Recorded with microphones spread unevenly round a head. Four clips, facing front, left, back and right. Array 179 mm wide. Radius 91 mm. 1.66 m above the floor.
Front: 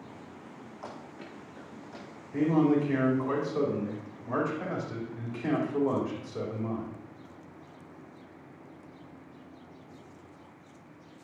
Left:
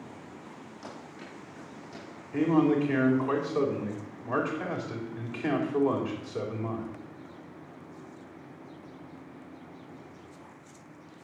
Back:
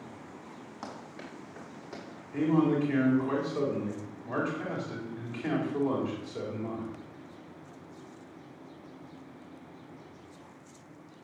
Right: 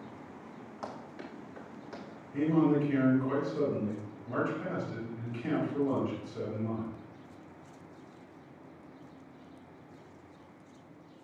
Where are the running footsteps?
160° right, 6 m; by 2.0 s 150° right, 5.5 m.